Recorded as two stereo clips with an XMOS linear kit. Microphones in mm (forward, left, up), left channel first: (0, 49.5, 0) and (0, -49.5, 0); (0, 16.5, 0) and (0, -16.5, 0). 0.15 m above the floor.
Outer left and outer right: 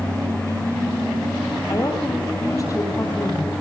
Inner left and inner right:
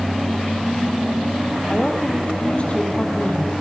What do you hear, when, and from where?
1.7 s a woman speaking: 35° left (ahead or behind), 4.5 m